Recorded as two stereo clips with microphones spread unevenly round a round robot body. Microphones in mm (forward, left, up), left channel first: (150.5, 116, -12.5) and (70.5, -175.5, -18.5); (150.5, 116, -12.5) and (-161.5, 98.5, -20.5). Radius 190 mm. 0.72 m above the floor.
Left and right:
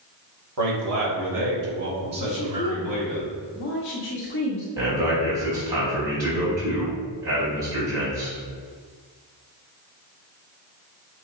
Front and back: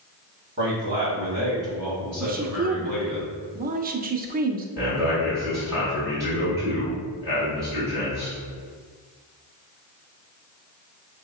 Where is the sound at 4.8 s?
95° right, 2.0 m.